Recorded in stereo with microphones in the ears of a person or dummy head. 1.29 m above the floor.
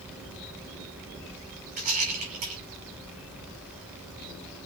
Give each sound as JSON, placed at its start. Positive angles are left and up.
{"t": 1.8, "sound": "a rattle", "side_deg": -45, "distance_m": 4.0}